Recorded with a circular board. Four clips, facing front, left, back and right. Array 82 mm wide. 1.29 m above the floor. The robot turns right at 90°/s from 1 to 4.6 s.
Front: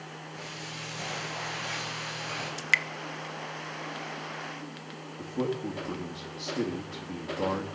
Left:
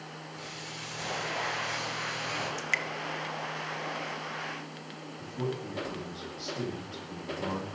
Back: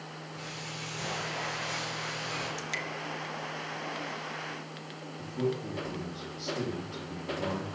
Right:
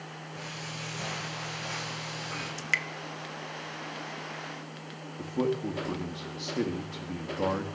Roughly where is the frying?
Right.